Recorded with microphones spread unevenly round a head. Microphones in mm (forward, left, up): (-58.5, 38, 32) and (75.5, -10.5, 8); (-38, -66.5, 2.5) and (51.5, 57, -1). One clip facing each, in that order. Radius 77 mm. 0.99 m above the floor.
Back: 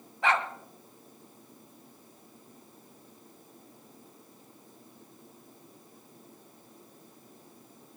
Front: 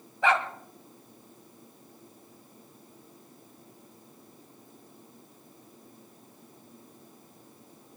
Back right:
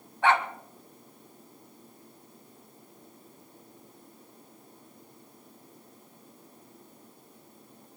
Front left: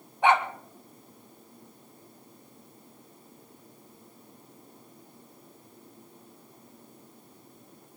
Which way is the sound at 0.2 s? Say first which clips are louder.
Front 2 dB, front left 2 dB; 20° right.